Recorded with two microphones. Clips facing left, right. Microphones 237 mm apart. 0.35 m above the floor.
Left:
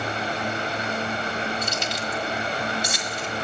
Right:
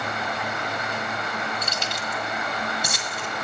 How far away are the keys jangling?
About 2 m.